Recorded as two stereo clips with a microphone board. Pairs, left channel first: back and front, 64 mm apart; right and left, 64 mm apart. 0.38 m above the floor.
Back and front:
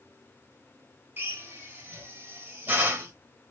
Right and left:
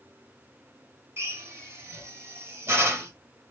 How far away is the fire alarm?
No fire alarm in this recording.